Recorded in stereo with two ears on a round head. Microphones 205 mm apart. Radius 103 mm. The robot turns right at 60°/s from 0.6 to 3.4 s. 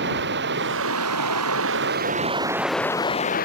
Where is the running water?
125° right; by 3.5 s 40° left.